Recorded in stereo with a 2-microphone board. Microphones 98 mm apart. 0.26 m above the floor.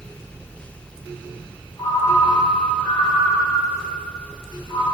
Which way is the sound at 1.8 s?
70° left (ahead or behind).